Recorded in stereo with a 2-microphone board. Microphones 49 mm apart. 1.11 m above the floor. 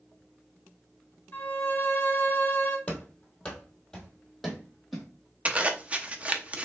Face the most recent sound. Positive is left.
turn(degrees=-25)  # may be behind; listen again after turning